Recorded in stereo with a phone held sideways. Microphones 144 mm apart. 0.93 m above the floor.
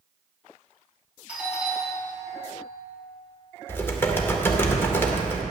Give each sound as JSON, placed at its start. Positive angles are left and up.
{"t": 1.3, "sound": "a doorbell", "side_deg": -10, "distance_m": 2.5}
{"t": 3.7, "sound": "typing on a keyboard", "side_deg": 15, "distance_m": 1.1}